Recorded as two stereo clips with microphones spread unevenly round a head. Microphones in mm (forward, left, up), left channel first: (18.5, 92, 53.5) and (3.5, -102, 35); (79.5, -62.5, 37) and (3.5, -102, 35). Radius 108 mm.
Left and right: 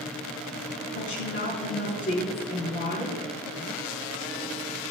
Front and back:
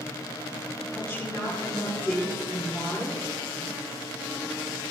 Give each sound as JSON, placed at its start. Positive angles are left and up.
{"t": 0.9, "sound": "a woman speaking", "azimuth_deg": 140, "distance_m": 4.0}